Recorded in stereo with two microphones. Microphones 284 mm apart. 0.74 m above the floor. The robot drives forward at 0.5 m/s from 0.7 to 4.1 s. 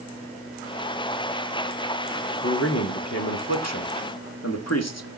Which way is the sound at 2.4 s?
55° left (ahead or behind).